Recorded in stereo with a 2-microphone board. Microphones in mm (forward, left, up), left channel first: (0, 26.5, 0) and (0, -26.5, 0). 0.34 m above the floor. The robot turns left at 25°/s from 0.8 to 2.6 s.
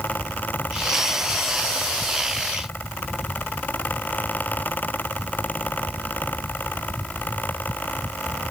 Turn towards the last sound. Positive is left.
No sound to turn to.